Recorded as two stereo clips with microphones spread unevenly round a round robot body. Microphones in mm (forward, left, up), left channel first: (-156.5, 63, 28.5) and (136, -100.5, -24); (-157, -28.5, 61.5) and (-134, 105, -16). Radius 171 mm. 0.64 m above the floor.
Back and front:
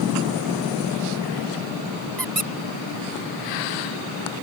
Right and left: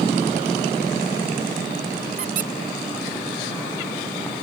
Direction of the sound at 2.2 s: 60° left.